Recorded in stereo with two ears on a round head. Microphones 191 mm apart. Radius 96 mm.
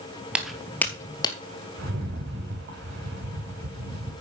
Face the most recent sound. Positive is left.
turn(degrees=-55)  # may be behind; listen again after turning